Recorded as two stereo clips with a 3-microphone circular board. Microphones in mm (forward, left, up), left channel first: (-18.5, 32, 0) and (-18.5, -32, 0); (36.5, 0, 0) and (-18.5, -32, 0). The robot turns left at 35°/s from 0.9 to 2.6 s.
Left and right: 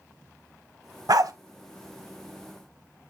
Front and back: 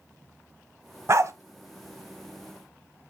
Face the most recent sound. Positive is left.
turn(degrees=-160)